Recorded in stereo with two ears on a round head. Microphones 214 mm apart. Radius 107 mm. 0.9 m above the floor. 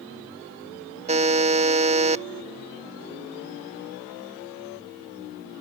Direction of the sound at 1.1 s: 30° right (ahead or behind).